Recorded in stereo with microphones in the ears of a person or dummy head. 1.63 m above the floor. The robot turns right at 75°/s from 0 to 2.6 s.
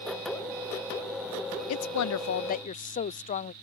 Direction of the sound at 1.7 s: 70° left.